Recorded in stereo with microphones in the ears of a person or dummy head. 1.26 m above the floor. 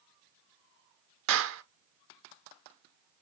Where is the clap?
60° right (ahead or behind), 0.5 m.